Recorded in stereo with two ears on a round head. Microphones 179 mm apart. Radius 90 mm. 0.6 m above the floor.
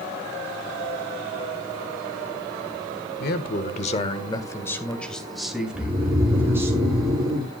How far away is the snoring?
About 10 m.